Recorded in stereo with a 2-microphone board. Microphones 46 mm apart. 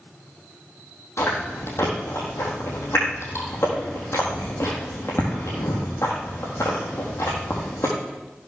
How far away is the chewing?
About 4 m.